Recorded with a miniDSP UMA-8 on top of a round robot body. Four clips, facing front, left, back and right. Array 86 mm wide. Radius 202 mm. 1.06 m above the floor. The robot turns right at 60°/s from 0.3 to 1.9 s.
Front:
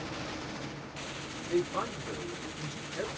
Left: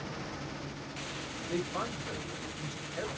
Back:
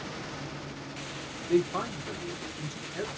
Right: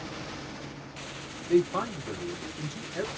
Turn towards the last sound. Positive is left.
turn(degrees=-115)